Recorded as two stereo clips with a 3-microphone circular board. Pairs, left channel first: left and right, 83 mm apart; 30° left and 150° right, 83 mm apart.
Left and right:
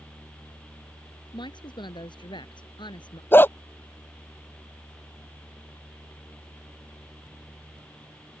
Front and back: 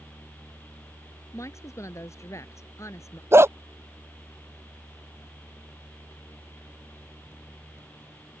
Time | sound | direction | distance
1.3 | a woman speaking | 80° left | ?
3.3 | a dog barking | 155° left | ?